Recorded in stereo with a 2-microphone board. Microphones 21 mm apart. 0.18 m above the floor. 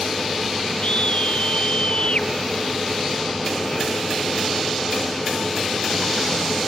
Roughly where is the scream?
Left.